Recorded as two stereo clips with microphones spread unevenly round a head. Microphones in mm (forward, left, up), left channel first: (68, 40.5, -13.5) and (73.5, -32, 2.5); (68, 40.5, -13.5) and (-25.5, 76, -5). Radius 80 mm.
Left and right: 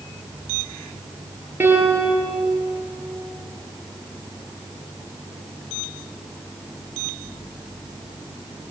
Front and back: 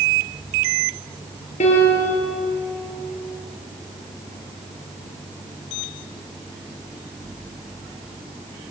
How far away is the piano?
About 5.5 m.